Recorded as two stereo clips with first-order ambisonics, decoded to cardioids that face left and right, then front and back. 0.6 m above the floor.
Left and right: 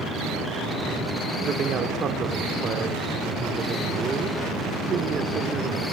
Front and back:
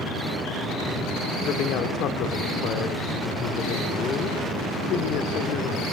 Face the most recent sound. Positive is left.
turn(degrees=-30)